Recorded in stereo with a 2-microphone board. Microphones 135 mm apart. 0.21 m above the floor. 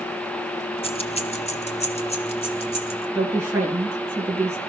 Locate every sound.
0.8 s keys jangling: 45° left (ahead or behind), 1.5 m
3.1 s a woman speaking: 20° right (ahead or behind), 3 m